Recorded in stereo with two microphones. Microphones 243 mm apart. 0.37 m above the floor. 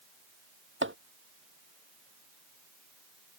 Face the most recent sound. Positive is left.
turn(degrees=-50)  # may be behind; listen again after turning